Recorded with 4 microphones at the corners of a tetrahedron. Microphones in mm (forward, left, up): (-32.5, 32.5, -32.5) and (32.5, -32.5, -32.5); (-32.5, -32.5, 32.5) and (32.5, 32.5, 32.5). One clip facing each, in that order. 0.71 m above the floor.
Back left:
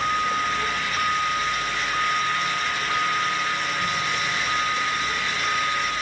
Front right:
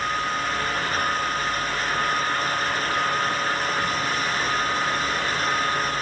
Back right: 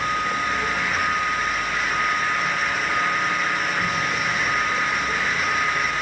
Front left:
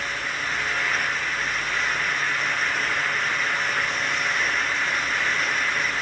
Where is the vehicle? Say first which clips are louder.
Back left 2 dB, back right 6 dB; 150° right; by 6.0 s 135° right.